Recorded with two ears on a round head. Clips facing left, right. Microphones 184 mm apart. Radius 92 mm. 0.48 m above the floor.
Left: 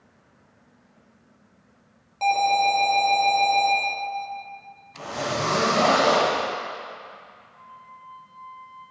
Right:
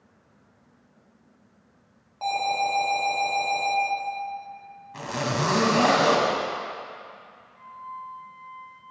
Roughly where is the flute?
Right.